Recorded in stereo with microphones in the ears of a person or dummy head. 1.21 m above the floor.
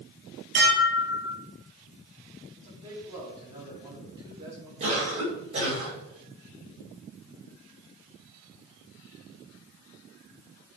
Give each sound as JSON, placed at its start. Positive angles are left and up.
{"t": 0.6, "sound": "dishes clattering", "side_deg": -65, "distance_m": 4.5}
{"t": 2.6, "sound": "a man speaking", "side_deg": -25, "distance_m": 4.0}
{"t": 4.8, "sound": "a cough", "side_deg": -40, "distance_m": 5.5}